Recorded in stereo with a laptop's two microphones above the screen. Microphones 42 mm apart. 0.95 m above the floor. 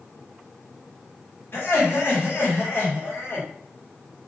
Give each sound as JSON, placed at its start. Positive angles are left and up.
{"t": 1.5, "sound": "laughter", "side_deg": 55, "distance_m": 1.4}